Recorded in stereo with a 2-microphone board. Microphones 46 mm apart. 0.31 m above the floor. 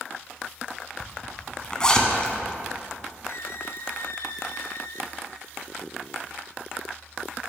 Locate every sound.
1.0 s a zipper: 15° left (ahead or behind), 0.9 m
3.3 s a squeak: 75° left (ahead or behind), 0.7 m